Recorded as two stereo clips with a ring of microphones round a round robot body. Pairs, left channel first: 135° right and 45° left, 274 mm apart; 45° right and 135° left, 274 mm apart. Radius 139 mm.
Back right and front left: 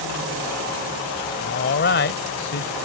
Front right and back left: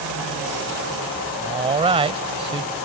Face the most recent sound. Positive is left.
turn(degrees=-165)